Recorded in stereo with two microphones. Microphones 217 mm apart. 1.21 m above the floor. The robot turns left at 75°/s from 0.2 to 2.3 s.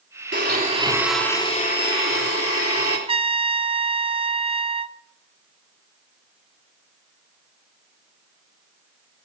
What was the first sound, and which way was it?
A blender, 120° right.